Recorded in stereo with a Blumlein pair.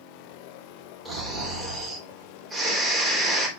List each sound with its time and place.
1.1 s snoring: 10° right, 3 m